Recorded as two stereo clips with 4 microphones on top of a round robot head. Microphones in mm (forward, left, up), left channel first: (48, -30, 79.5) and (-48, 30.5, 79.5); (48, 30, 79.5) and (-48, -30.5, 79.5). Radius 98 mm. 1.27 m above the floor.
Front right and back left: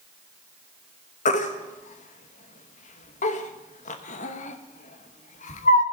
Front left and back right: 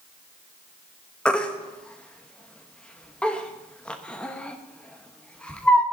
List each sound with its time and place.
1.2 s a baby crying: 50° right, 1.2 m